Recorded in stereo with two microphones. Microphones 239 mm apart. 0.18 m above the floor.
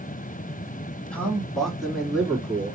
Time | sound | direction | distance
1.1 | a man speaking | 5° left (ahead or behind) | 1.7 m